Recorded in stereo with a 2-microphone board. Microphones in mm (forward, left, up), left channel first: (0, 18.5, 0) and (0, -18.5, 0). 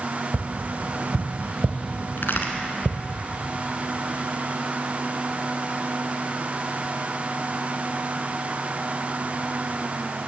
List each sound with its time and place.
0.3 s tapping: 55° right (ahead or behind), 0.7 m
2.2 s a crack: 75° left (ahead or behind), 1.1 m